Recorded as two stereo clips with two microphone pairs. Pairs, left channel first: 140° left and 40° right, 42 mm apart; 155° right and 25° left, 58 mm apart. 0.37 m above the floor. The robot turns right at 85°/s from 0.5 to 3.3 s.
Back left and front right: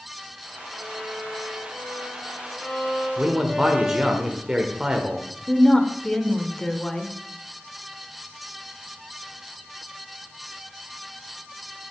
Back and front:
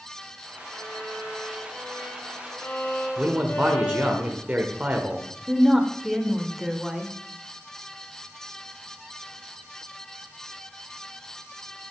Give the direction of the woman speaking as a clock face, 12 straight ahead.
9 o'clock.